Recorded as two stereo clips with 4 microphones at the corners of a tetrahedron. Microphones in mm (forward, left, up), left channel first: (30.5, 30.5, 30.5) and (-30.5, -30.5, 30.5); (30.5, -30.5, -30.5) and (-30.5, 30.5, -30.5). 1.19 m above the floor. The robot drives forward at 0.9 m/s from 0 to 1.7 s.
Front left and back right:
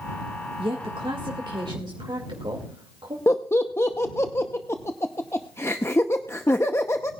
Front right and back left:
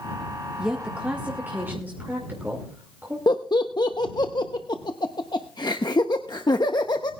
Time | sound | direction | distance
0.6 | a woman speaking | 145° right | 1.4 m
3.3 | laughter | 15° right | 0.8 m